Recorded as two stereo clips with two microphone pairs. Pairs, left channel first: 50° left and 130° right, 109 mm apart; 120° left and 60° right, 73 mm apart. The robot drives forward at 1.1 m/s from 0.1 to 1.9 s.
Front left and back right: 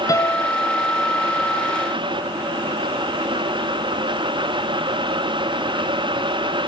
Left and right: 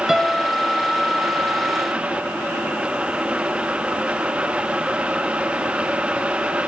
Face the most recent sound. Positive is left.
turn(degrees=175)